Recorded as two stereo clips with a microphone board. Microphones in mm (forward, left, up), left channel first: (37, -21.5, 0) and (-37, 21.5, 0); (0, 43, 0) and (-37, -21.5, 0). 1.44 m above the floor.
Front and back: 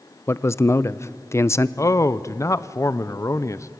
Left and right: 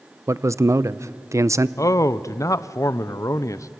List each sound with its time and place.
0.3 s a man speaking: 85° right, 0.6 m
1.8 s a man speaking: 20° left, 0.6 m